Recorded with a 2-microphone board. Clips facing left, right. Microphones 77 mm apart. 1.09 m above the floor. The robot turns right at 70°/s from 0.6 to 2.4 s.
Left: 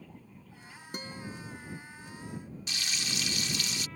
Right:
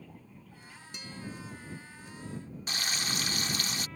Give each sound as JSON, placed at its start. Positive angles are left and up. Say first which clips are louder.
{"t": 0.9, "sound": "a guitar", "louder": "left 2 dB", "azimuth_deg": 135}
{"t": 2.7, "sound": "frying", "louder": "right 3 dB", "side_deg": -40}